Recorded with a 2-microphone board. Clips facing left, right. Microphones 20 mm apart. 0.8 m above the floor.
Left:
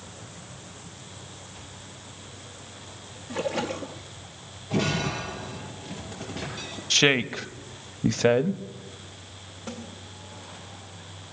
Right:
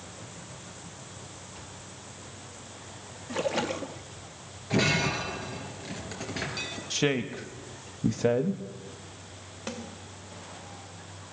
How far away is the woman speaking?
About 0.7 m.